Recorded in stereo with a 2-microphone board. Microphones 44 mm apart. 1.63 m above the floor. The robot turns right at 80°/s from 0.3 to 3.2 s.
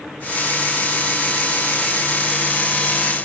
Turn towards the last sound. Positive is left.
No sound to turn to.